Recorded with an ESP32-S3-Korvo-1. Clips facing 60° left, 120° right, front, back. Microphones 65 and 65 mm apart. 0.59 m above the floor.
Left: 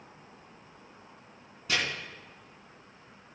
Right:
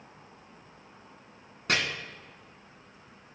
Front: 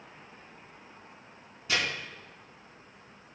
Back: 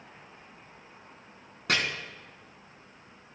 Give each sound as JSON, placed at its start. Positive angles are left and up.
{"t": 1.7, "sound": "chopping", "azimuth_deg": -150, "distance_m": 3.5}